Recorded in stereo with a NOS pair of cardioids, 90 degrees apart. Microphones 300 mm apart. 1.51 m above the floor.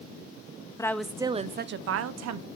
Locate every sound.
0.8 s a woman speaking: 10° left, 0.7 m; by 2.5 s 65° right, 0.9 m